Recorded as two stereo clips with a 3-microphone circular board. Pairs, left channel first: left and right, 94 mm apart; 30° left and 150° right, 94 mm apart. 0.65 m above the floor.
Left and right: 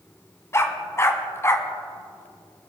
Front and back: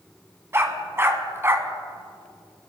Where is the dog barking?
150° left, 1.1 m.